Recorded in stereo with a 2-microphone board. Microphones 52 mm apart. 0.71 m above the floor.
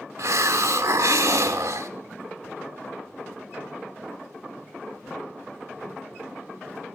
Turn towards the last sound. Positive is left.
turn(degrees=-85)